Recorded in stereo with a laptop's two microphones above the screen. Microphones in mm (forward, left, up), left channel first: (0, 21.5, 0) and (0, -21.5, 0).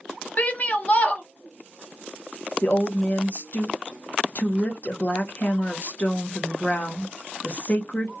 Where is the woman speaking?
40° left (ahead or behind), 0.7 m.